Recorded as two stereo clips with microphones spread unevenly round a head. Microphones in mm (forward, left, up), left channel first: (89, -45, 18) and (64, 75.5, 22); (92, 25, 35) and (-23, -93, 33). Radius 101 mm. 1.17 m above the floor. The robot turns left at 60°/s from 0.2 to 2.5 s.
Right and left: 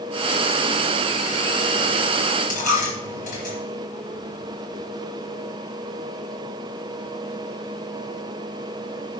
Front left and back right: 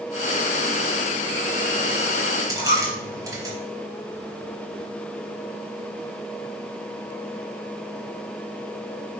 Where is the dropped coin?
65° right, 4 m.